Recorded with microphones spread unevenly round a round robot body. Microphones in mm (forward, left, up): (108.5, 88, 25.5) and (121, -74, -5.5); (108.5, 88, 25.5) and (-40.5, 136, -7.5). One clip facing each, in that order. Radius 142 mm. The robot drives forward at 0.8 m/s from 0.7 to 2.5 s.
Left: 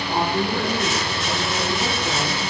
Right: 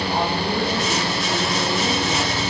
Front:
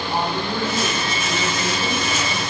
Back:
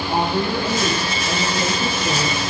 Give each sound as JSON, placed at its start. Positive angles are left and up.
{"t": 0.1, "sound": "a woman speaking", "azimuth_deg": 150, "distance_m": 8.5}